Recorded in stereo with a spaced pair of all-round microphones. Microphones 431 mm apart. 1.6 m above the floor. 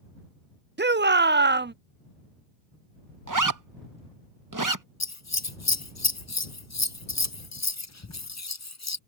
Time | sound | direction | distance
0.8 | a shout | 25° right (ahead or behind) | ?
3.3 | a zipper | 45° right (ahead or behind) | ?
5.0 | scissors | 40° left (ahead or behind) | ?